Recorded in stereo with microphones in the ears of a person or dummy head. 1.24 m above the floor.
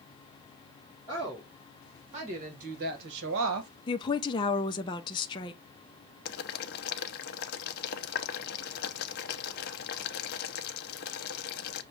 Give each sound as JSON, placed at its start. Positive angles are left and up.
{"t": 1.1, "sound": "a woman speaking", "side_deg": -30, "distance_m": 2.5}
{"t": 3.9, "sound": "a woman speaking", "side_deg": 25, "distance_m": 0.7}
{"t": 6.2, "sound": "boiling", "side_deg": 50, "distance_m": 0.6}